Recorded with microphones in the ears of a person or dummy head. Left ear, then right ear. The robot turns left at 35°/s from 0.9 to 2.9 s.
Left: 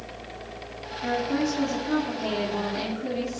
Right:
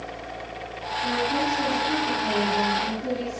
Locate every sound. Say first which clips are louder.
1.0 s a woman speaking: right 2 dB; 110° left, 3.5 m; by 3.4 s 45° left, 3.5 m